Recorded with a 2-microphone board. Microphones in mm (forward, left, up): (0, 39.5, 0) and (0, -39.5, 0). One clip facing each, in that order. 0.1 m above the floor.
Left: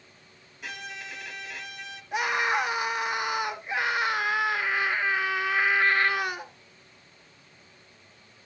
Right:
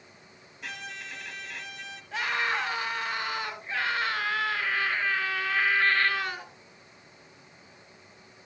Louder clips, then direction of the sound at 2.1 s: Left 3 dB; 15° left (ahead or behind).